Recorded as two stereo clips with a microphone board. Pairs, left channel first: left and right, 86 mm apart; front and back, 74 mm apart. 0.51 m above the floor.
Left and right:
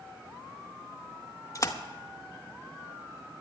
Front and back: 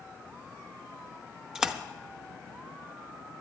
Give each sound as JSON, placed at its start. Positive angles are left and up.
{"t": 1.6, "sound": "a splash", "azimuth_deg": 100, "distance_m": 0.9}